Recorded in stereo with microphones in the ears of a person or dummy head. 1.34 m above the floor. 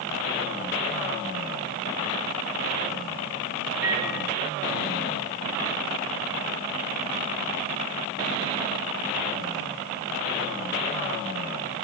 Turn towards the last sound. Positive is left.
turn(degrees=-15)  # may be behind; listen again after turning